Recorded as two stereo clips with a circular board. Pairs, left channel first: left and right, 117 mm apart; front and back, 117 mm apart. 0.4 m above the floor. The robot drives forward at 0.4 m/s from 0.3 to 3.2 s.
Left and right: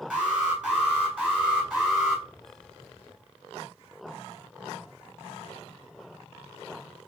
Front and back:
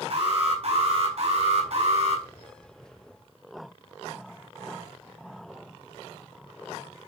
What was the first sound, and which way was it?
An alarm, 170° right.